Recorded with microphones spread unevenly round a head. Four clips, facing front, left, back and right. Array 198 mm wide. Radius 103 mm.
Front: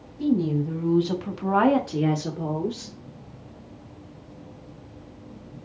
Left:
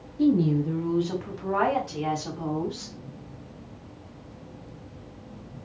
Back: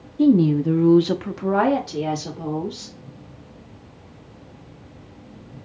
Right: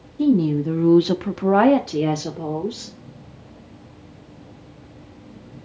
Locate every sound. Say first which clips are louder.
0.2 s a woman speaking: right 4 dB, back 7 dB; 170° right, 1.0 m; by 3.0 s 55° right, 1.6 m